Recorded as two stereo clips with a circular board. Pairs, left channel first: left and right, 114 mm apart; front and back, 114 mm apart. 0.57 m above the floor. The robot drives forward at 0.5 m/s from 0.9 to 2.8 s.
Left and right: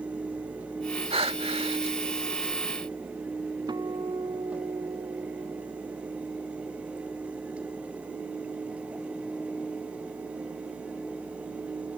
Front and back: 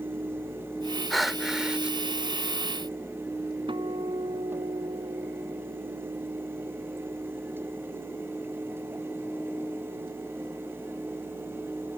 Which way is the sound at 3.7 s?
140° right.